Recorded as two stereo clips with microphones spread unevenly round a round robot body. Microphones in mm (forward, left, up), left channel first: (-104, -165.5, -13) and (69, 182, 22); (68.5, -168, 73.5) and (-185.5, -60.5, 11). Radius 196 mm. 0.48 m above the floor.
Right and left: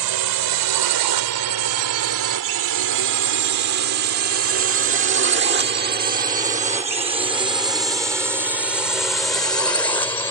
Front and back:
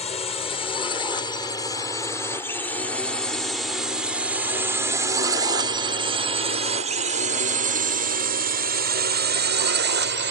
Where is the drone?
55° left; by 10.3 s 165° left.